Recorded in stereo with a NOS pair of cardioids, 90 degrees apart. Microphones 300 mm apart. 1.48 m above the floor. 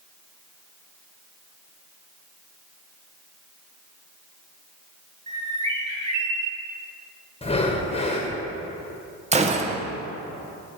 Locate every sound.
5.3 s a bird: 25° right, 2.5 m
7.4 s breathing: 20° left, 1.4 m
9.3 s a gunshot: 20° right, 0.9 m